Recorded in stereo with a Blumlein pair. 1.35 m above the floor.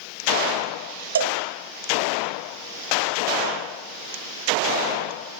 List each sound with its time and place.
1.1 s a cowbell: 70° right, 0.6 m